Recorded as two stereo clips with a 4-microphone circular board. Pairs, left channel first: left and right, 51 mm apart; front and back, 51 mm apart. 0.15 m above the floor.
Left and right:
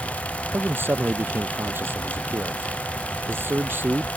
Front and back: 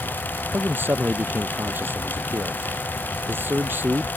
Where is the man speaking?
135° right.